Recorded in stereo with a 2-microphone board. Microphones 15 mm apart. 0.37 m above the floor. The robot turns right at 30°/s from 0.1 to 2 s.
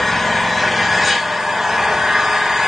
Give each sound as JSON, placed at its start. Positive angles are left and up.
{"t": 0.0, "sound": "an engine running", "azimuth_deg": 165, "distance_m": 1.2}